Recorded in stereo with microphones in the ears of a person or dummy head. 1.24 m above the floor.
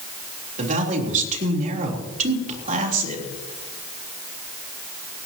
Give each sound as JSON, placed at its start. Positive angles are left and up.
{"t": 0.6, "sound": "a man speaking", "side_deg": -45, "distance_m": 3.5}